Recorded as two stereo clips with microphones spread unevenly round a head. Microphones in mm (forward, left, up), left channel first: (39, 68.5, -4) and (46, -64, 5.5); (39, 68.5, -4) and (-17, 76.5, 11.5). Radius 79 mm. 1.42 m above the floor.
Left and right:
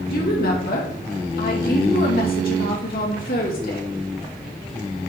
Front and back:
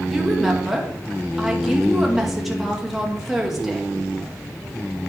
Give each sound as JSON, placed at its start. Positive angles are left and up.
{"t": 0.1, "sound": "a woman speaking", "azimuth_deg": 85, "distance_m": 1.9}